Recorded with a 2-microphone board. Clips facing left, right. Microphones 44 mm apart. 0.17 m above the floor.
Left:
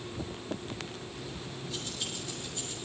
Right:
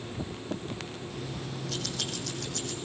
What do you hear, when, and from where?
1.1 s keys jangling: 55° right (ahead or behind), 3.5 m; by 2.8 s 80° right, 4.5 m